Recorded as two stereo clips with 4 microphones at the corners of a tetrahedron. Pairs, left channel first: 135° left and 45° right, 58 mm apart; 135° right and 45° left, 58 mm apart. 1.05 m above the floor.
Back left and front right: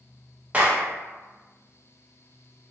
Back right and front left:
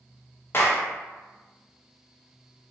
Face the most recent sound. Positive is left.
turn(degrees=-100)